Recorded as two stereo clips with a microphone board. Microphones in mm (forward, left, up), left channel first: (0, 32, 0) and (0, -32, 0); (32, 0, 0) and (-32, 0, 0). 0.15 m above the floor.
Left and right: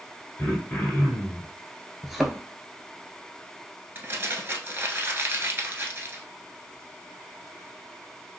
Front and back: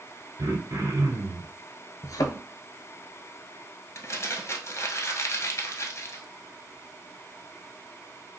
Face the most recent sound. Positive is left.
turn(degrees=-35)